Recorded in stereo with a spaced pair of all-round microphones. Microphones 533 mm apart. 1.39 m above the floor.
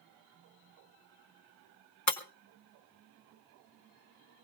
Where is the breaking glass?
30° left (ahead or behind), 1.4 m.